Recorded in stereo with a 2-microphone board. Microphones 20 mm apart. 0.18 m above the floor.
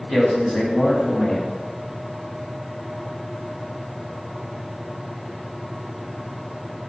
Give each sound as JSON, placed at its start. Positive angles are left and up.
{"t": 0.1, "sound": "a man speaking", "side_deg": 15, "distance_m": 1.2}